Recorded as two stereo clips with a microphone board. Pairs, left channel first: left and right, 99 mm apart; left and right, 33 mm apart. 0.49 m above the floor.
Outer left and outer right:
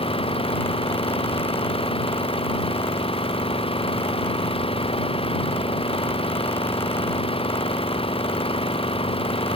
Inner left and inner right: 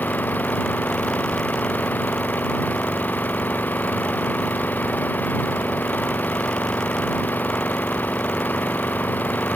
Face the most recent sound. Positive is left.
turn(degrees=85)